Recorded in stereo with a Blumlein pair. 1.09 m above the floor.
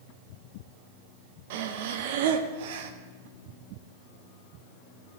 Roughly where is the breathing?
Ahead right.